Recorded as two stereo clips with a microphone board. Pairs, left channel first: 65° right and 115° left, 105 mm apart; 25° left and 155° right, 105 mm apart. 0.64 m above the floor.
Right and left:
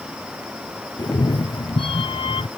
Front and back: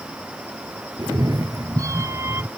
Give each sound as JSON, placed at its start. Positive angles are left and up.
{"t": 1.0, "sound": "a cat meowing", "azimuth_deg": -115}